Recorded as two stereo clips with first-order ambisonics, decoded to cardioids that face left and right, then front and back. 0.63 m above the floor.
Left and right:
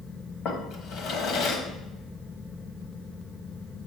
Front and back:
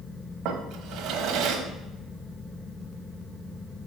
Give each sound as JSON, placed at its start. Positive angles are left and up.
{"t": 0.5, "sound": "a drawer", "azimuth_deg": 140, "distance_m": 1.2}